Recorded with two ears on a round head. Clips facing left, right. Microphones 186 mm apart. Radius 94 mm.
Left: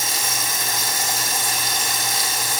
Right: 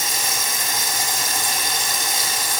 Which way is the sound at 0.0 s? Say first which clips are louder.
Even; 15° right (ahead or behind).